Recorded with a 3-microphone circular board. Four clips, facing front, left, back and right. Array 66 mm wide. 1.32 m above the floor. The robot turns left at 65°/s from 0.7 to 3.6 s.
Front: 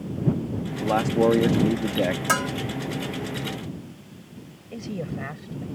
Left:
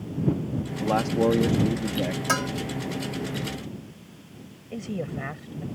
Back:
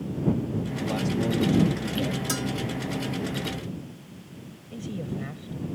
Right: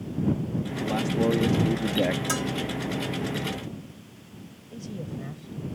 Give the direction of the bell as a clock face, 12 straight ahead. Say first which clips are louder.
Left 3 dB, front 7 dB; 11 o'clock.